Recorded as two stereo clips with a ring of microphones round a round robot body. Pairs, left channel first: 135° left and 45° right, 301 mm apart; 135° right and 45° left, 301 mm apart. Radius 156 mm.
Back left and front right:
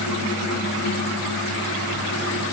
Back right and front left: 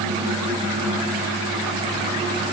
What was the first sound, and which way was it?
Only background noise.